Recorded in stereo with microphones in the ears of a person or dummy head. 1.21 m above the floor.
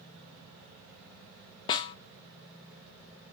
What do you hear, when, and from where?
1.7 s a snare drum: 25° left (ahead or behind), 0.5 m